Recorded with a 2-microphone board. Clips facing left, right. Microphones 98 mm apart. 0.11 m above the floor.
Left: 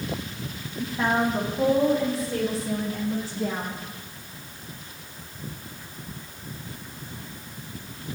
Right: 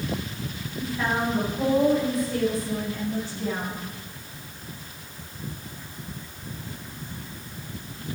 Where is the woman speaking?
20° left (ahead or behind), 6.5 m; by 3.8 s 40° left (ahead or behind), 7.5 m.